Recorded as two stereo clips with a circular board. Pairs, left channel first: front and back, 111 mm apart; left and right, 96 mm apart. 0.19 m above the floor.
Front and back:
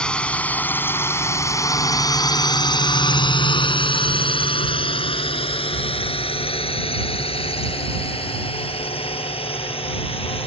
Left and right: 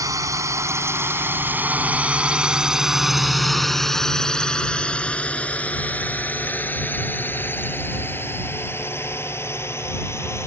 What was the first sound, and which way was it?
A drone, 75° right.